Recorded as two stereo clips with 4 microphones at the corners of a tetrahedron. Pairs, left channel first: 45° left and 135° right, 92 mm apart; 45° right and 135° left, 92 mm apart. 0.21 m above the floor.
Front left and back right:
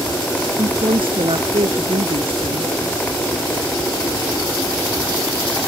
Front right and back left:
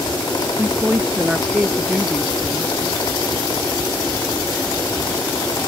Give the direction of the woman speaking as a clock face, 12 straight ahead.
5 o'clock.